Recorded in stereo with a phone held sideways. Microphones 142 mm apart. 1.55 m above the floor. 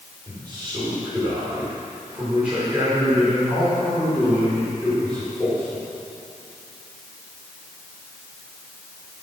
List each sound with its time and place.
0.3 s a man speaking: 20° right (ahead or behind), 6 m; by 5.8 s 15° left (ahead or behind), 5.5 m